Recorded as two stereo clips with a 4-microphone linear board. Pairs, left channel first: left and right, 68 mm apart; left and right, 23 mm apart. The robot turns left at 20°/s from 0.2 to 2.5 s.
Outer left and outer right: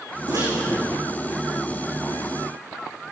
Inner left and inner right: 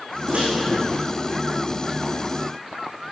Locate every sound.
0.3 s a microwave: 80° right, 8.5 m; by 0.5 s 75° right (ahead or behind), 8.5 m